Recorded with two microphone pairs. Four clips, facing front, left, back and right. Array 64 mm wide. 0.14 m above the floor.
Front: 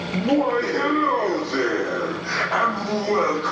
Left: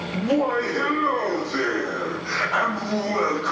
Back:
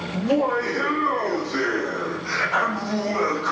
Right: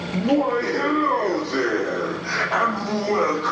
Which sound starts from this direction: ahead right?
Laughter, at 0.1 s.